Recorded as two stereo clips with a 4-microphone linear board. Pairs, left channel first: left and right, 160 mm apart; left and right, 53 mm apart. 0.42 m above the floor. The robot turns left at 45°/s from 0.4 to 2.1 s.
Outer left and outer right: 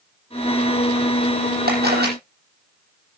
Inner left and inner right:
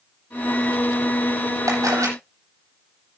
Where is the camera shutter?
75° right (ahead or behind), 10 m; by 2.1 s 85° right, 10 m.